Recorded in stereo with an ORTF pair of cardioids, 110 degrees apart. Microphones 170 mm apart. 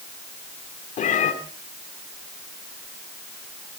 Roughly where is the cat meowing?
Ahead left.